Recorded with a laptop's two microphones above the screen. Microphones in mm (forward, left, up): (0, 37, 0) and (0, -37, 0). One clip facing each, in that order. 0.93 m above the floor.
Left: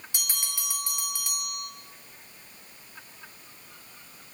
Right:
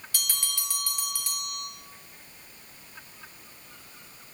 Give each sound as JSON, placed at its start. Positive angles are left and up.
{"t": 0.1, "sound": "a bell", "side_deg": 20, "distance_m": 0.5}